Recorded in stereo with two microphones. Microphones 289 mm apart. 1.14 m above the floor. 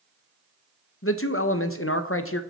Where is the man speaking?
50° left (ahead or behind), 0.8 m.